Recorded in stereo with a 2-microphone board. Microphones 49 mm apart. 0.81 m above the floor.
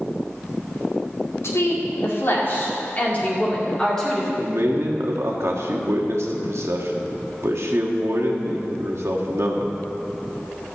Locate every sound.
1.4 s a woman speaking: 65° left (ahead or behind), 2.5 m; by 4.3 s 5° left (ahead or behind), 2.5 m
4.4 s a man speaking: 65° right (ahead or behind), 1.4 m